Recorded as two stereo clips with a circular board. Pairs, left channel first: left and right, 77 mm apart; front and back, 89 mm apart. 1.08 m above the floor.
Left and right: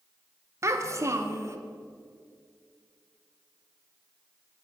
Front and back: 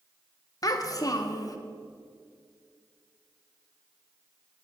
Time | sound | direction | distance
0.6 | a child speaking | 40° right | 0.7 m